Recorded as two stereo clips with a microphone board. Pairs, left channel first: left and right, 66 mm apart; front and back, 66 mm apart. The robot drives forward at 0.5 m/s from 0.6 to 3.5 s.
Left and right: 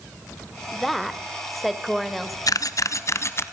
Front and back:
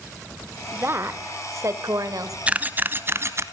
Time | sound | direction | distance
0.7 | a woman speaking | straight behind | 1.0 m
2.5 | a camera shutter | 110° left | 0.8 m